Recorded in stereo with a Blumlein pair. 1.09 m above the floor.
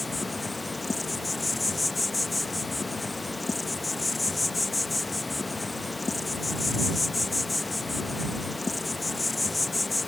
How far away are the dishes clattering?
No dishes clattering in this recording.